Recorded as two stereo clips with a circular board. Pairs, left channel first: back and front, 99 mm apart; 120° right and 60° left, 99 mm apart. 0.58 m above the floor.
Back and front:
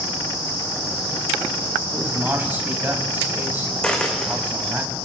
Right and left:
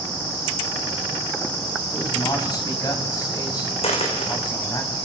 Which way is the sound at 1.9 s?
70° right.